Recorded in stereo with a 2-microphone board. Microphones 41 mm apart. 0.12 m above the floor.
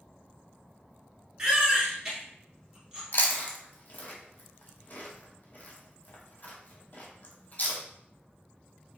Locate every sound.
1.4 s a baby crying: 20° right (ahead or behind), 1.3 m
3.1 s chewing: 40° left (ahead or behind), 0.8 m